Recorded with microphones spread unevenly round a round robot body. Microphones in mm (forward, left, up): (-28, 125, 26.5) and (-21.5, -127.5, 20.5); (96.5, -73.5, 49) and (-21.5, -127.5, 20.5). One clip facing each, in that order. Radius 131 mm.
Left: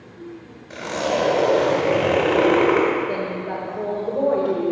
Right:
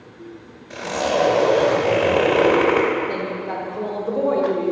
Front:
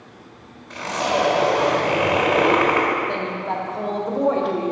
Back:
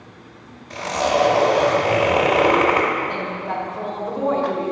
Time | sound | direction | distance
0.7 | a zipper | 175° left | 1.5 m
3.1 | a woman speaking | 25° right | 1.1 m